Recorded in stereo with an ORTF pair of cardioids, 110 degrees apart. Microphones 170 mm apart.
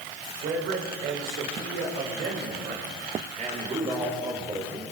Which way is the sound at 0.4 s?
65° right.